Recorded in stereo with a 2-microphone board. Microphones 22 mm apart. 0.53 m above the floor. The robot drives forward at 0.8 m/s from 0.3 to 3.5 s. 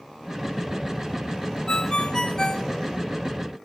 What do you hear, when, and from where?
1.7 s a ringtone: 40° left (ahead or behind), 0.6 m; by 2.7 s 25° left (ahead or behind), 0.9 m